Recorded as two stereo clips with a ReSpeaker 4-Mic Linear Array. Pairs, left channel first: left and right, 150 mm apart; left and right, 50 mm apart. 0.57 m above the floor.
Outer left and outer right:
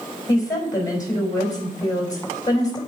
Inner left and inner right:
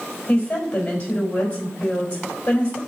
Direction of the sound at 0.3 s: 25° left (ahead or behind).